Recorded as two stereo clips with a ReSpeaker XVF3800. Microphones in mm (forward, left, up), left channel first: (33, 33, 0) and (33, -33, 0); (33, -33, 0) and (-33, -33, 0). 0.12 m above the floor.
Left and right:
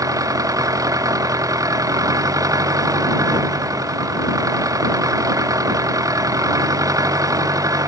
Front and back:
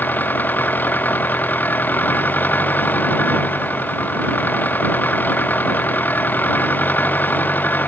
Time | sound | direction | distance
0.0 | an engine running | 60° right | ?